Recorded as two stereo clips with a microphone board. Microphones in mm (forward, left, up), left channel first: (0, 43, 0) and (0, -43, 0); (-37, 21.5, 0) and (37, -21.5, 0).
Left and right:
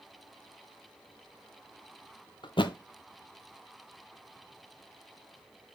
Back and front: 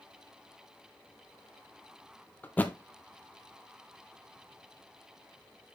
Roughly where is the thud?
Left.